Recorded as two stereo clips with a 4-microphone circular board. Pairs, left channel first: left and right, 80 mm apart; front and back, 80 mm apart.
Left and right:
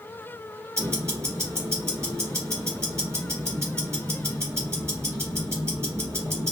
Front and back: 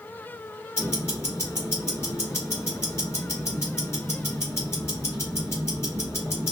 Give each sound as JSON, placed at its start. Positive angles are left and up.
{"t": 0.8, "sound": "ticking", "azimuth_deg": -45, "distance_m": 2.0}